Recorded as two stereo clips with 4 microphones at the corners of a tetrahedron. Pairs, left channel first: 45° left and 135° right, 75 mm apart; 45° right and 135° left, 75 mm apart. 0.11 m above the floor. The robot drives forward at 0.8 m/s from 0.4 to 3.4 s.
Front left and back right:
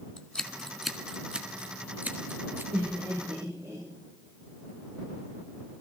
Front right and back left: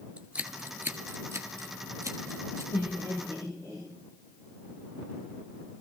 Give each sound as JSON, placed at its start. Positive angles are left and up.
{"t": 0.2, "sound": "scissors", "azimuth_deg": 100, "distance_m": 1.1}
{"t": 2.7, "sound": "laughter", "azimuth_deg": -80, "distance_m": 8.0}